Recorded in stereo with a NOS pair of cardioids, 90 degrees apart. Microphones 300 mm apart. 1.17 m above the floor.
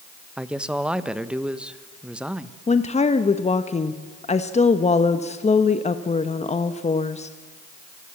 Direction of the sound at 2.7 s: 20° left.